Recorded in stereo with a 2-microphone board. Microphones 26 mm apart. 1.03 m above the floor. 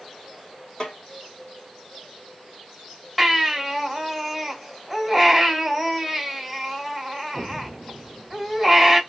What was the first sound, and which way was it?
A snare drum, 30° left (ahead or behind).